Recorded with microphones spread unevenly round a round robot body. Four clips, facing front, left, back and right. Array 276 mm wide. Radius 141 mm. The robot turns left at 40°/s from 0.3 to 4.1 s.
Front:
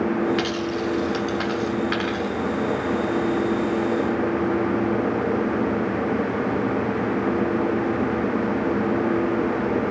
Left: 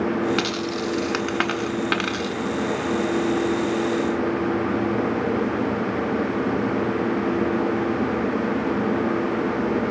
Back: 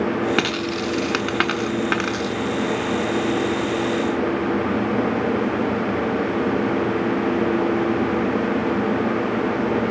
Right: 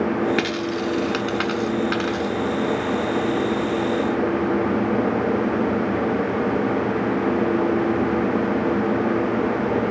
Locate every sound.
0.4 s a dropped coin: 160° right, 1.4 m; by 2.4 s 120° left, 1.4 m